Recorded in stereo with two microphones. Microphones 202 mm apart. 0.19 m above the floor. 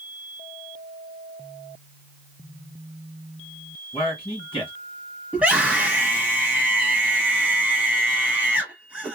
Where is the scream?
5° right (ahead or behind), 1.1 m.